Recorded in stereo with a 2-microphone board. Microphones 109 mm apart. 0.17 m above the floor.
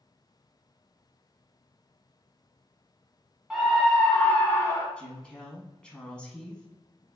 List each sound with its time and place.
3.5 s a scream: 5° right (ahead or behind), 1.1 m; by 4.9 s 30° left (ahead or behind), 1.1 m
5.0 s a woman speaking: 10° left (ahead or behind), 1.1 m